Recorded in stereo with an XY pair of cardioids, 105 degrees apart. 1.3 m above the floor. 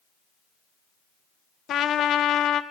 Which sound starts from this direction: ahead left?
A trumpet, at 1.7 s.